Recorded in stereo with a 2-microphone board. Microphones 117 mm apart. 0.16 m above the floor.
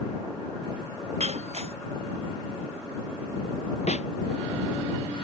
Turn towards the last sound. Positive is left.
turn(degrees=75)  # may be behind; listen again after turning